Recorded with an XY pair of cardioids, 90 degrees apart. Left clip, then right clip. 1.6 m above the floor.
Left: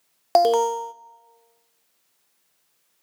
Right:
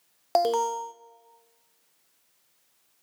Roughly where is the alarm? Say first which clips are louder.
Left 6 dB; ahead left.